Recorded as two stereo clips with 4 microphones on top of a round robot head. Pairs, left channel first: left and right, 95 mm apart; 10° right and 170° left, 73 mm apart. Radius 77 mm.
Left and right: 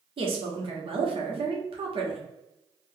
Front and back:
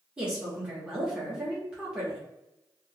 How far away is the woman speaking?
About 1.1 m.